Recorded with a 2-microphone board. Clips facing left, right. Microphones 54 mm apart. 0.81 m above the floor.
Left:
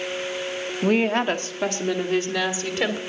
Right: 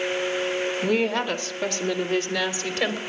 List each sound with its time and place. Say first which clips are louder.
0.8 s a woman speaking: left 5 dB; 40° left (ahead or behind), 1.9 m; by 3.0 s 10° left (ahead or behind), 3.5 m